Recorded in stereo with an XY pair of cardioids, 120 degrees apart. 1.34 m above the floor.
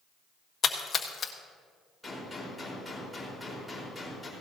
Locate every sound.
0.6 s a splash: 35° left, 1.3 m
2.0 s a gunshot: 5° left, 4.5 m